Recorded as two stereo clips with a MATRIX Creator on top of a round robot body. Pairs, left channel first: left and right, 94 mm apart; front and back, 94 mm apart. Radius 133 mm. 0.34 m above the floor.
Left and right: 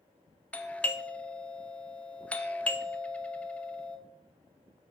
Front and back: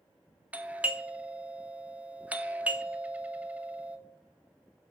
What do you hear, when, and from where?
0.5 s a doorbell: 135° left, 1.3 m